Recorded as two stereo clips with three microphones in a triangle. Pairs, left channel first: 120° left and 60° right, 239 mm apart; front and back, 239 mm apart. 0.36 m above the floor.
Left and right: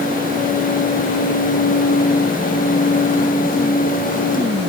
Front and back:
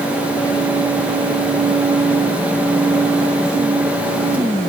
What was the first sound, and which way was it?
Only background noise.